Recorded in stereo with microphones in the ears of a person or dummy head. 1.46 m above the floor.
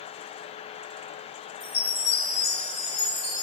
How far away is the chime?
About 1.1 m.